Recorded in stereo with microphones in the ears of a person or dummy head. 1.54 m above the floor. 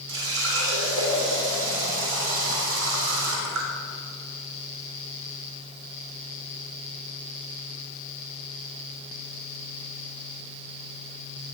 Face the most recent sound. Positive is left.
turn(degrees=-75)  # may be behind; listen again after turning